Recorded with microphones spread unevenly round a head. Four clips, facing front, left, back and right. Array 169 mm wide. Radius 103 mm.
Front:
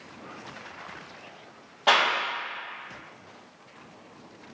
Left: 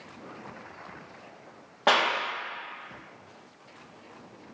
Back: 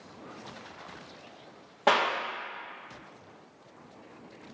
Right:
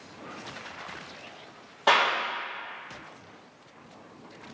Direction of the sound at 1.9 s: 145° left.